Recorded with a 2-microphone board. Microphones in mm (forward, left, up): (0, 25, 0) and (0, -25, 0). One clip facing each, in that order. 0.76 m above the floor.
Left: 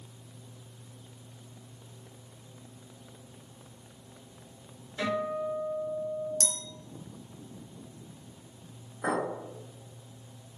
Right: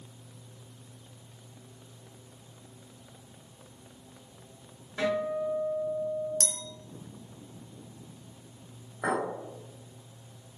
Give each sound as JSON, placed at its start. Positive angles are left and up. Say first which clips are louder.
{"t": 5.0, "sound": "a guitar", "louder": "right 2 dB", "side_deg": -75, "distance_m": 1.9}
{"t": 6.4, "sound": "a clink", "louder": "even", "side_deg": -50, "distance_m": 0.5}
{"t": 9.0, "sound": "a clink", "louder": "even", "side_deg": -75, "distance_m": 2.0}